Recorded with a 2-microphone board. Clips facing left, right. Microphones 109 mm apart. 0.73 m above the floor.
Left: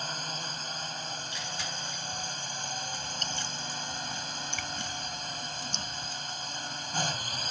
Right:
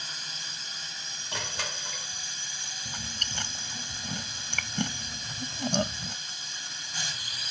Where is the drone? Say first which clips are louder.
Left 7 dB; 45° left (ahead or behind).